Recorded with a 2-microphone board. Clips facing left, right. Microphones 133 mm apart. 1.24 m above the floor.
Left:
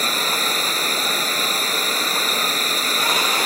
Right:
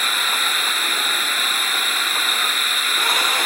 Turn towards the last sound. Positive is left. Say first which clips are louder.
# left 2 dB
turn(degrees=40)  # may be behind; listen again after turning